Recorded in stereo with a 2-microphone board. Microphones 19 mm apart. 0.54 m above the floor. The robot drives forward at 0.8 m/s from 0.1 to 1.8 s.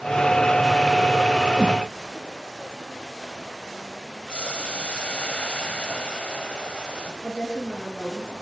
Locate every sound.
1.6 s a whoosh: 55° left (ahead or behind), 3.5 m
4.3 s boiling: 70° left (ahead or behind), 3.5 m
7.2 s a woman speaking: 70° left (ahead or behind), 9 m